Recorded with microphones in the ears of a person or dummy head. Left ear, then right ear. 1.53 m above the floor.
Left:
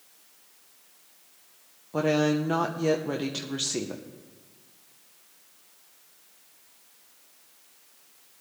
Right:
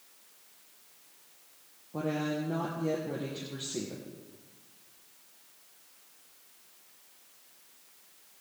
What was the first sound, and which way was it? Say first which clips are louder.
A woman speaking: left 9 dB; 60° left (ahead or behind).